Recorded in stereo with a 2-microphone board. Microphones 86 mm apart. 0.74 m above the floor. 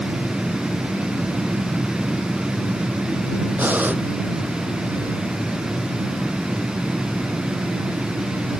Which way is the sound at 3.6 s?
20° right (ahead or behind).